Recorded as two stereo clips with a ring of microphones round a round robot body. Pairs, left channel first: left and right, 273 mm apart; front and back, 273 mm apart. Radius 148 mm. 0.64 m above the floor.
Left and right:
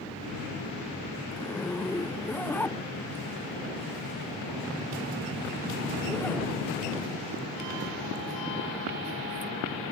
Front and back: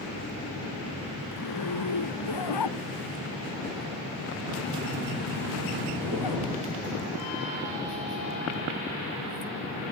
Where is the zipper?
5° left.